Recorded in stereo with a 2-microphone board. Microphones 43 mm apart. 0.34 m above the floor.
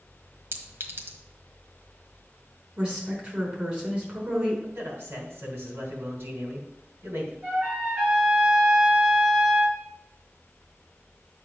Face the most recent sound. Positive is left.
turn(degrees=-45)  # may be behind; listen again after turning